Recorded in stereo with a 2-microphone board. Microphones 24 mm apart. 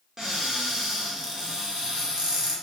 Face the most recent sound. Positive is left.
turn(degrees=-25)  # may be behind; listen again after turning